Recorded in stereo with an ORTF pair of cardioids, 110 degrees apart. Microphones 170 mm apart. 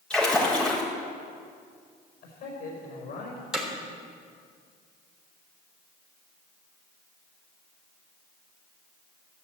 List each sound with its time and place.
0.1 s a splash: 5° left, 4 m
2.2 s a man speaking: 65° left, 5 m
3.5 s hammering: 5° right, 3.5 m